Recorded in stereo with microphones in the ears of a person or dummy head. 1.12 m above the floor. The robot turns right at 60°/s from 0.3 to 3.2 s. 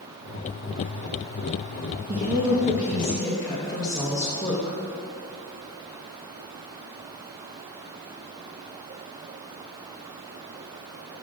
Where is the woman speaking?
45° right, 1.2 m; by 4.8 s 20° left, 1.2 m.